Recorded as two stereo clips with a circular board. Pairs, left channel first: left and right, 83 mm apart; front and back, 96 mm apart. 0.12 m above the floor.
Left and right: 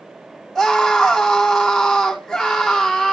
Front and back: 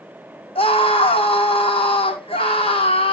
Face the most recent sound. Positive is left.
turn(degrees=0)